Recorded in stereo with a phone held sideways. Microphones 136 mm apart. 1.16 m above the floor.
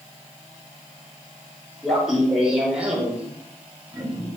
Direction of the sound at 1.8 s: Centre (ahead or behind).